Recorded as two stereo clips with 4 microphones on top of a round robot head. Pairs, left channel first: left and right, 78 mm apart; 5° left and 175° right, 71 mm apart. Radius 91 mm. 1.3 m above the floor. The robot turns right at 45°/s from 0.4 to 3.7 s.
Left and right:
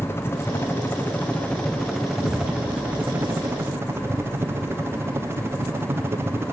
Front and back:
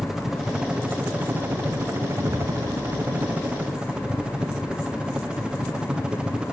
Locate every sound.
0.0 s a helicopter: 105° left; by 6.5 s 105° right
2.2 s an explosion: 105° left; by 4.1 s 175° left